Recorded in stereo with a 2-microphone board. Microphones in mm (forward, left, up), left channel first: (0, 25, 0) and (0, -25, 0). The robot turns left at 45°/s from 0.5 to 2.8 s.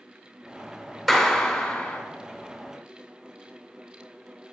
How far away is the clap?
About 1.3 m.